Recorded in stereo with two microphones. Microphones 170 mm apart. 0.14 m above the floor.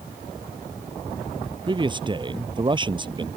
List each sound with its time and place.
1.7 s a man speaking: 30° right (ahead or behind)